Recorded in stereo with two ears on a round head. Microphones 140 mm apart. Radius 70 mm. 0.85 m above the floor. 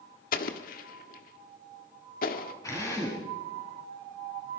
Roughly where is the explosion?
Left.